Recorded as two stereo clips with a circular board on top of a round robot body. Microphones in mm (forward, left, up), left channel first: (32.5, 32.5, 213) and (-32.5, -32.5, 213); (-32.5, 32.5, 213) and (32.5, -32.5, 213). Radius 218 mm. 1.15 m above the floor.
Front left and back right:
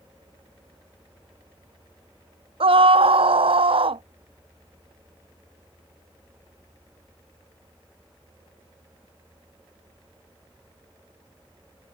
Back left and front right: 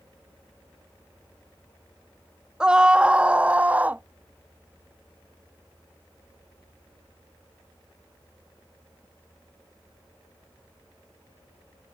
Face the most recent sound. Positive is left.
turn(degrees=-120)